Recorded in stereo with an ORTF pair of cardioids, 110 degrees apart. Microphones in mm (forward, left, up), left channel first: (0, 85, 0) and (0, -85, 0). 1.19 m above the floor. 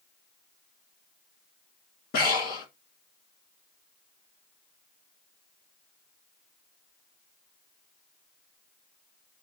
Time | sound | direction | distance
2.1 | breathing | 65° left | 1.9 m